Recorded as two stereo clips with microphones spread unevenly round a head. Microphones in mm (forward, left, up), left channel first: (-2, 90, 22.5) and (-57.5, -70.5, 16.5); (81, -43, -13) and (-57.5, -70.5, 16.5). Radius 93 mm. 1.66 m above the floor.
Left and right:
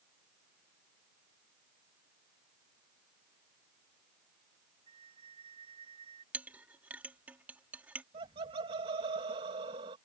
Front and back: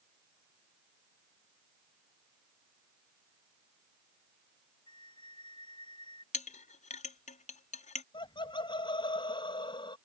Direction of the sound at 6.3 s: 25° right.